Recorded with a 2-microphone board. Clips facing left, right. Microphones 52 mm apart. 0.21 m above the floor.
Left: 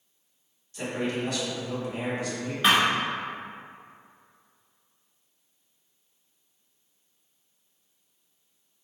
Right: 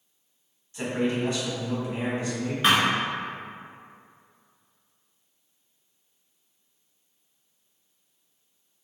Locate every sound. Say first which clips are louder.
0.7 s a man speaking: right 3 dB; 25° right (ahead or behind), 1.3 m
2.6 s a thud: even; centre (ahead or behind), 1.1 m